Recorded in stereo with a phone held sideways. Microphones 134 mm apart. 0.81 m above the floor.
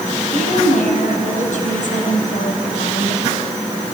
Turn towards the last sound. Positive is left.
turn(degrees=80)